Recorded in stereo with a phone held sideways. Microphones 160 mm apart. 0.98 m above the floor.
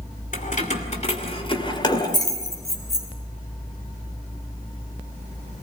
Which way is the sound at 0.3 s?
55° left (ahead or behind).